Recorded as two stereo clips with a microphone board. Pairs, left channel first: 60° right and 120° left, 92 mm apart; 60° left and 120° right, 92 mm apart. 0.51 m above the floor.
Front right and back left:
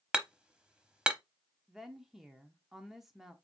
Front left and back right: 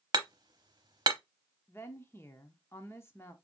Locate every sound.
0.1 s hammering: 160° right, 0.7 m
1.7 s a woman speaking: 35° left, 0.9 m